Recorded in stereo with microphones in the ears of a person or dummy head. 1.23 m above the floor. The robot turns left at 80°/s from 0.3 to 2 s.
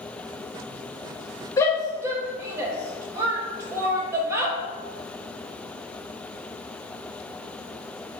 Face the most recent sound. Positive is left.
turn(degrees=-15)  # may be behind; listen again after turning